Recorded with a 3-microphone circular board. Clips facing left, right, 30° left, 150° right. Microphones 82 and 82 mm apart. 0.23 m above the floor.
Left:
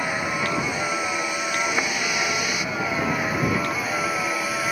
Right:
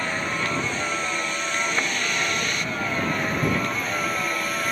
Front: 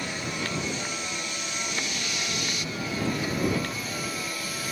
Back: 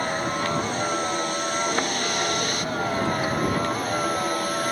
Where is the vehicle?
170° left; by 4.7 s 175° left.